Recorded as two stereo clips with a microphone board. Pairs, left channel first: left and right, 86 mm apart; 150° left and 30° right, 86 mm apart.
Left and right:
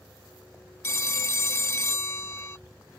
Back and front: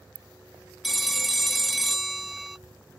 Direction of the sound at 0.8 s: 60° left.